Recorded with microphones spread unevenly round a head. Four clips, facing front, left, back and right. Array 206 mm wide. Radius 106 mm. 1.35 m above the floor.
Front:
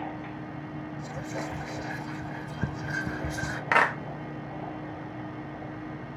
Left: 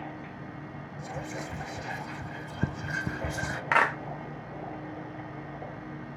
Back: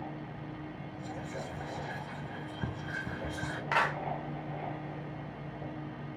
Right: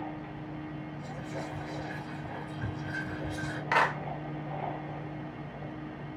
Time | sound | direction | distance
1.0 | whispering | 70° left | 0.5 m
3.7 | a clap | 30° left | 1.0 m